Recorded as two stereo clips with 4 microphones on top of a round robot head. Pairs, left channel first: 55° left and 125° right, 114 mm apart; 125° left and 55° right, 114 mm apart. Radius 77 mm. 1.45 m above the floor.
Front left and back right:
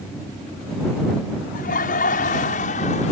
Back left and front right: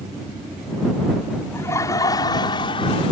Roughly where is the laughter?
Ahead left.